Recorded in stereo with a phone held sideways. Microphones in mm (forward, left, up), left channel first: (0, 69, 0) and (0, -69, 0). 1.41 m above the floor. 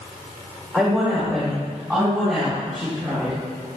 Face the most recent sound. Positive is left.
turn(degrees=0)  # may be behind; listen again after turning